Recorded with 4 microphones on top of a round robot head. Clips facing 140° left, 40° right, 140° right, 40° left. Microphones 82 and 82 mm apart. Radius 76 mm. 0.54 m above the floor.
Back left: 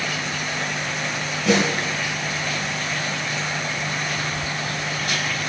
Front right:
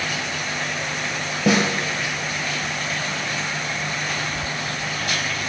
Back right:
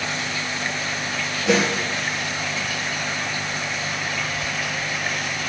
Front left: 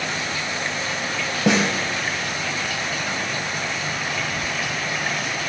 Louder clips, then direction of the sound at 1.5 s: Even, even; 5° left.